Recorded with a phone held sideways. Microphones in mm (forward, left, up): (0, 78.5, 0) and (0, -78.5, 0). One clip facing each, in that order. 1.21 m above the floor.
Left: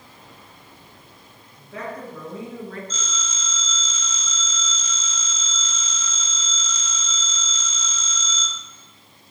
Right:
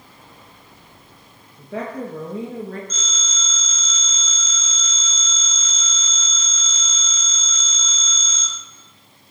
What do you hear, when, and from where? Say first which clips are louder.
1.6 s a woman speaking: right 5 dB; 85° right, 1.5 m; by 2.8 s 40° right (ahead or behind), 1.7 m
2.9 s a phone ringing: left 1 dB; 75° right (ahead or behind), 4 m